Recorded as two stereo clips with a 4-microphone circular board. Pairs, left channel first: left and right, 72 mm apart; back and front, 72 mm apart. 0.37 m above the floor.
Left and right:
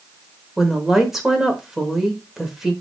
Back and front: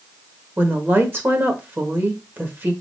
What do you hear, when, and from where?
0.6 s a woman speaking: 10° right, 1.1 m